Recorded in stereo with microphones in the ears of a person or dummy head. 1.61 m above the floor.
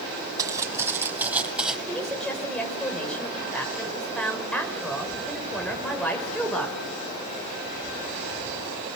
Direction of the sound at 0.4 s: 25° right (ahead or behind).